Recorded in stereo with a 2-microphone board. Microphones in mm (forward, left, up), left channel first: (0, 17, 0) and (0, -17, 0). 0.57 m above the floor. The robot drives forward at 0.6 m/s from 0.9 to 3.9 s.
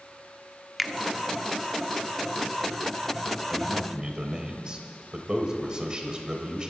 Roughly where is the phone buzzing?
I don't hear a phone buzzing.